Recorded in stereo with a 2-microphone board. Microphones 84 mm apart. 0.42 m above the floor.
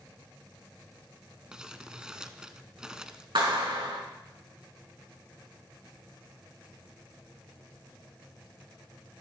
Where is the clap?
80° right, 4.5 m.